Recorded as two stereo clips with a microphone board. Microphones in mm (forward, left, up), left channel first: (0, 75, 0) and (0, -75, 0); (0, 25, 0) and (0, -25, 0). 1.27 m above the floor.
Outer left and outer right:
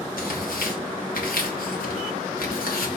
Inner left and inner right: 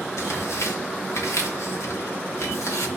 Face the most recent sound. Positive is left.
turn(degrees=85)